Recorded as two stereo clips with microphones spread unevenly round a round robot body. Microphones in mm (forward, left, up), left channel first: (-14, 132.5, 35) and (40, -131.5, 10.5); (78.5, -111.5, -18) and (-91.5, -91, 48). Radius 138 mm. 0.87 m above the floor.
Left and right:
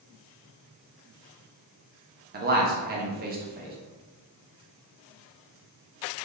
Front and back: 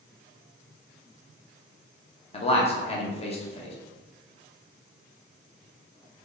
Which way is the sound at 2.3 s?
30° right.